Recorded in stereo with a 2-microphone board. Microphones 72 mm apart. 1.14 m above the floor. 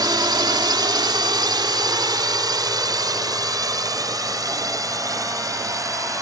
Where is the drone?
70° right (ahead or behind); by 6.2 s 50° right (ahead or behind).